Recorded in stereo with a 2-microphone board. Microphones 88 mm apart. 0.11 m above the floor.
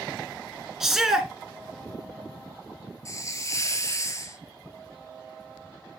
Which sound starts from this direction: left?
A hiss, at 3.0 s.